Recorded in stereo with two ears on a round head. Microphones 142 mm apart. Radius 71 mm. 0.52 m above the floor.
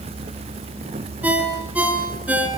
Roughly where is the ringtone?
Centre.